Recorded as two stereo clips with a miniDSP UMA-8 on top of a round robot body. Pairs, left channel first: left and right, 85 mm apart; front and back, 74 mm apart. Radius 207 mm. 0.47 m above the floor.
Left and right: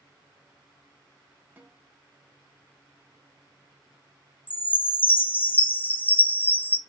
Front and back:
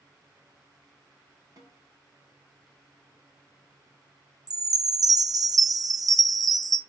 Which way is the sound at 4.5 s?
155° left.